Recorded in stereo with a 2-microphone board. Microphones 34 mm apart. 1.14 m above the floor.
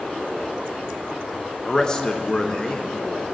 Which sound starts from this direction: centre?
A man speaking, at 1.6 s.